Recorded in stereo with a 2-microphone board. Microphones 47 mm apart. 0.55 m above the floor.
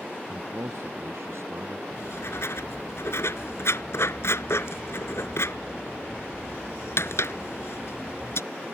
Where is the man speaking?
65° right (ahead or behind).